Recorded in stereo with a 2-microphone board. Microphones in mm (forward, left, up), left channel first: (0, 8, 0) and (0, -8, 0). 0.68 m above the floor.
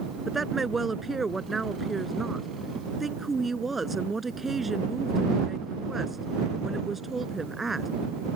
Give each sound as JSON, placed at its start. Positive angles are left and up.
{"t": 0.3, "sound": "a woman speaking", "side_deg": -10}